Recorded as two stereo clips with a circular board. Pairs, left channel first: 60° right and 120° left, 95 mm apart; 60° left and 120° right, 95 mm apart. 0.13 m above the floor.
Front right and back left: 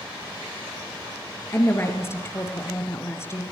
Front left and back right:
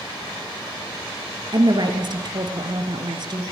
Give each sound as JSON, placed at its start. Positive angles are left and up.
{"t": 1.5, "sound": "a woman speaking", "azimuth_deg": -115, "distance_m": 2.5}